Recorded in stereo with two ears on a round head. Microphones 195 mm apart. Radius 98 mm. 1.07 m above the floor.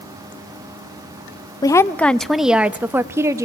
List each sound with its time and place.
1.6 s a woman speaking: 15° left (ahead or behind), 0.7 m; by 3.5 s 15° right (ahead or behind), 1.5 m